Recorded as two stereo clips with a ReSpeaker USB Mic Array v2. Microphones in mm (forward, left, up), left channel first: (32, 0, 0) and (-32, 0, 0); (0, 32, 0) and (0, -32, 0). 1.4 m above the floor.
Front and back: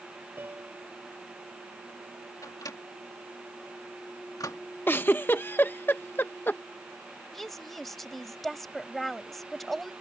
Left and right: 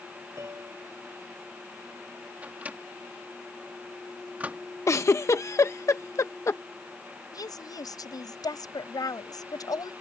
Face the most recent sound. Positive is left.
turn(degrees=85)